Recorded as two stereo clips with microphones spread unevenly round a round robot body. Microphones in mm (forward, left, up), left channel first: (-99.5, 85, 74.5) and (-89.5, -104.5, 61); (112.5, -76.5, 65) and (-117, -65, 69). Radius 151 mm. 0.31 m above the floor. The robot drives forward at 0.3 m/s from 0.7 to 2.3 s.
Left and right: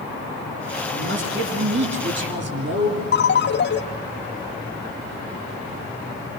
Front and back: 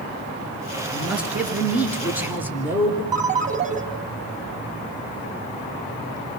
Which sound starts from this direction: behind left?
A ringtone, at 3.1 s.